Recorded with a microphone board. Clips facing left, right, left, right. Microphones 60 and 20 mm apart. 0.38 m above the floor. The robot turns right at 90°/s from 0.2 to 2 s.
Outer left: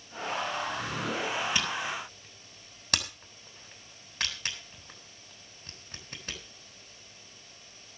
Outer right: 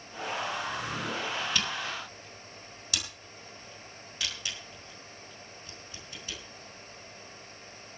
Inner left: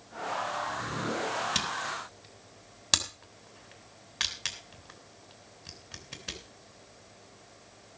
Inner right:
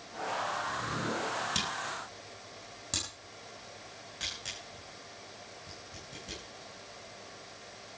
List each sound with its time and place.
1.6 s a camera shutter: 20° left (ahead or behind), 3.5 m; by 6.4 s 55° left (ahead or behind), 3.5 m